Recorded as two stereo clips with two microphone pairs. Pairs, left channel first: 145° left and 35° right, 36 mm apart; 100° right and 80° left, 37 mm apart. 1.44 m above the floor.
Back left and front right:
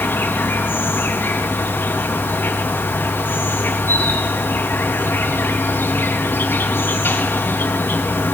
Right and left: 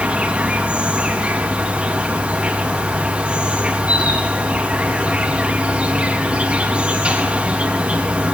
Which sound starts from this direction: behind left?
An insect, at 0.0 s.